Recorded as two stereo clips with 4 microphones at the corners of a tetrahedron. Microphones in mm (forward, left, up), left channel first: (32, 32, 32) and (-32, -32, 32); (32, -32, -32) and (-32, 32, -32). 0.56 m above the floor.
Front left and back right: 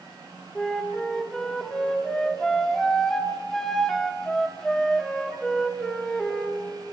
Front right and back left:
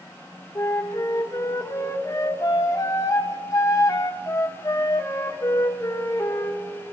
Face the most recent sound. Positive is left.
turn(degrees=-35)